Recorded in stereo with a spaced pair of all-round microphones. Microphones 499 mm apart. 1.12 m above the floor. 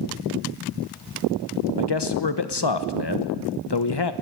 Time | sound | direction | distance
1.8 | a man speaking | 55° left (ahead or behind) | 1.0 m